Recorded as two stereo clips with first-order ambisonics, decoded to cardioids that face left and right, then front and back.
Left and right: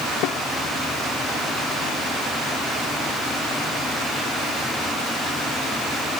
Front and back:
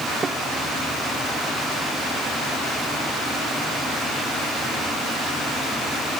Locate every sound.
0.2 s a snare drum: 110° left